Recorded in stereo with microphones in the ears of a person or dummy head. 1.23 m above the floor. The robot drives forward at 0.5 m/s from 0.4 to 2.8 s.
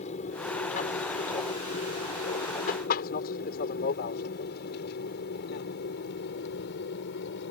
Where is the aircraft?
35° left (ahead or behind); by 7.5 s 60° left (ahead or behind).